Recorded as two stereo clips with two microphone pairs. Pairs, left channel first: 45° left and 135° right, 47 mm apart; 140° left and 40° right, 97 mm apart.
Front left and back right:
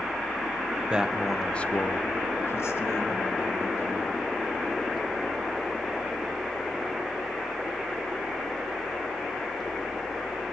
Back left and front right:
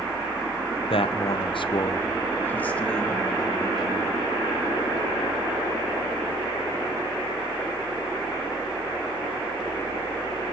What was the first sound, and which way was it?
A man speaking, 160° left.